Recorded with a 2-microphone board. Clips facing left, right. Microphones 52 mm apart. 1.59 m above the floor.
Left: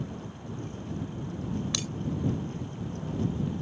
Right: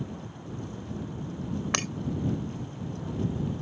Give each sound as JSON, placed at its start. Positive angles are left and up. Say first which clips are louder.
{"t": 1.7, "sound": "breaking glass", "louder": "right 5 dB", "side_deg": -60}